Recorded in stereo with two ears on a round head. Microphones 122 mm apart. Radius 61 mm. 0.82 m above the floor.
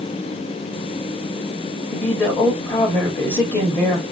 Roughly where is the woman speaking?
Centre.